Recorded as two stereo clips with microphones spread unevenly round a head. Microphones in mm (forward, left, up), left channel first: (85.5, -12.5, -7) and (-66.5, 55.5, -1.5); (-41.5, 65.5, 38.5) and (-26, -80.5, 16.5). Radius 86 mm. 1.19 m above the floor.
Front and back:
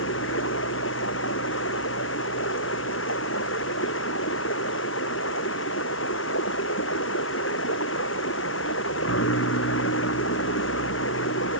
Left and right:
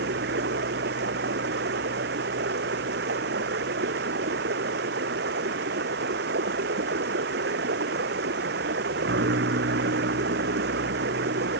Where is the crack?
I don't hear a crack.